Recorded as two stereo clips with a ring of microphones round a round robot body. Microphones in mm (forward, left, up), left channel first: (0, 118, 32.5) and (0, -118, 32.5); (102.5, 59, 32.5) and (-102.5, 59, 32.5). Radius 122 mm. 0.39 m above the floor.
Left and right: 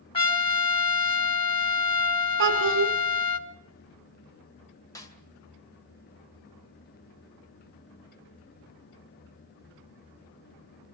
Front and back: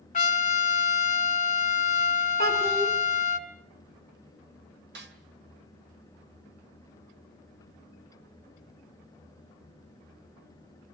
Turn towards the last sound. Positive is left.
turn(degrees=165)